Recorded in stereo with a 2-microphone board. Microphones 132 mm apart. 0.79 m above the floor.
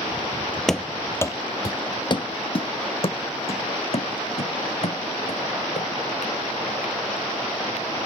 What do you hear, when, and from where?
0.7 s running footsteps: centre (ahead or behind); by 8.1 s 60° left (ahead or behind)